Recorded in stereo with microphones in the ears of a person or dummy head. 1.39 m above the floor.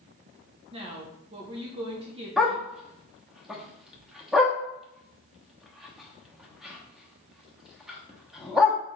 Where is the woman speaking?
30° right (ahead or behind), 0.7 m.